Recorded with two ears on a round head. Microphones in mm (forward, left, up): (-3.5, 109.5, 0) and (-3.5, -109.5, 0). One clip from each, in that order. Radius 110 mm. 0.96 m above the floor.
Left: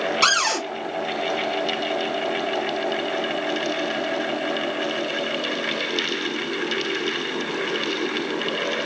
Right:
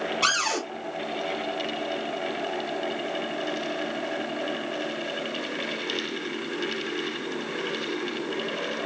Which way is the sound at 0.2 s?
65° left (ahead or behind).